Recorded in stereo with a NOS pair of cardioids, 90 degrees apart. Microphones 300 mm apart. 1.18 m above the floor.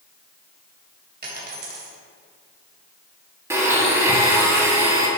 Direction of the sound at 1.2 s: 35° right.